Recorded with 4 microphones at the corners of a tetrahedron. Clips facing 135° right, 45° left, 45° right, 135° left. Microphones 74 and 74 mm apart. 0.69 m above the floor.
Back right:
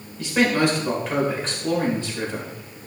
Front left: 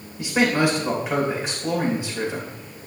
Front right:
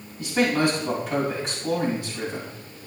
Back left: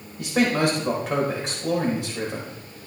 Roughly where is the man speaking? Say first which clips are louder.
Even, back left 1 dB; behind left.